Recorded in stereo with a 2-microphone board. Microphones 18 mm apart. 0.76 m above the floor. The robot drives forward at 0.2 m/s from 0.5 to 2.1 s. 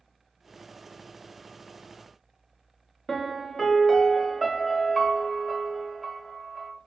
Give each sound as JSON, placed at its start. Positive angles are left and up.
{"t": 3.1, "sound": "a piano", "side_deg": 15, "distance_m": 0.6}